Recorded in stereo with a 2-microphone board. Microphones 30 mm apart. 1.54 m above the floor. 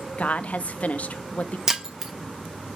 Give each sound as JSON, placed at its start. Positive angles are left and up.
{"t": 0.2, "sound": "a woman speaking", "side_deg": 50, "distance_m": 0.6}
{"t": 1.7, "sound": "breaking glass", "side_deg": -15, "distance_m": 0.8}